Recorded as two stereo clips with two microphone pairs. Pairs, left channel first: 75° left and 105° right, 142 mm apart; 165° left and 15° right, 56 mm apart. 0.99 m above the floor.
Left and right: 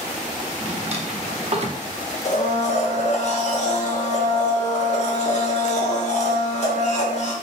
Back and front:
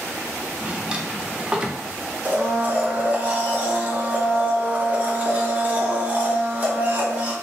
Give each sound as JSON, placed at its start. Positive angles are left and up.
{"t": 0.6, "sound": "a drawer", "azimuth_deg": -80, "distance_m": 0.6}
{"t": 2.2, "sound": "a blender", "azimuth_deg": 45, "distance_m": 0.7}